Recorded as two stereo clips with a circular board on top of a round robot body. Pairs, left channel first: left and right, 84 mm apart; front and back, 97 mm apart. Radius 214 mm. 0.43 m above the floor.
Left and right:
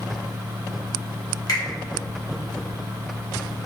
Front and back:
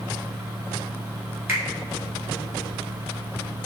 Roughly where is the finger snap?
Behind left.